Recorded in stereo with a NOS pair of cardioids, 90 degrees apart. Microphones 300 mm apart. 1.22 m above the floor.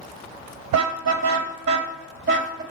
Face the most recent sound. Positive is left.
turn(degrees=-40)